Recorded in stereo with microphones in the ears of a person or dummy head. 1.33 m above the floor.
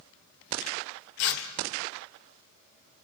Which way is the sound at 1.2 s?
60° left (ahead or behind).